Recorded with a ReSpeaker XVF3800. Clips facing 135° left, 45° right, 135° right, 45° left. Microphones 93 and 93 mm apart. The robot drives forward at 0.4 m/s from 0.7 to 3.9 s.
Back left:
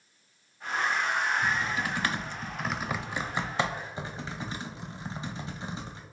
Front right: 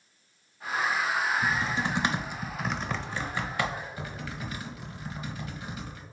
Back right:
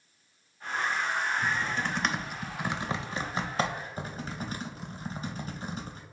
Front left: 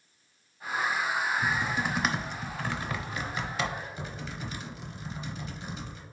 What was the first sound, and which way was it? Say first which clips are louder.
Typing on a keyboard: front right 1 dB, front left 1 dB; 15° right.